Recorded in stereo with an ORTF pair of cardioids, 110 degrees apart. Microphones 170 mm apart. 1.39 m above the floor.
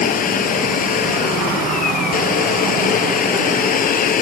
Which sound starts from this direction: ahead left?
A machine running, at 0.0 s.